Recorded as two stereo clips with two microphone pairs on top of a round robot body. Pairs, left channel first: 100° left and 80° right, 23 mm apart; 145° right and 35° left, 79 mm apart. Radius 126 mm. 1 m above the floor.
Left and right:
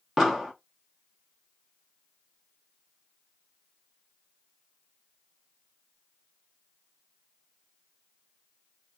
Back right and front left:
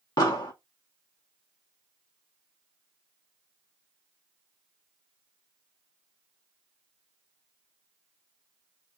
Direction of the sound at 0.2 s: 155° right.